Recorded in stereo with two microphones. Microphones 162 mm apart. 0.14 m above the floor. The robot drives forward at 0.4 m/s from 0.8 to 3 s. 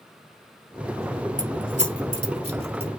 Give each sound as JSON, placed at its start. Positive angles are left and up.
{"t": 1.4, "sound": "keys jangling", "side_deg": -50, "distance_m": 1.9}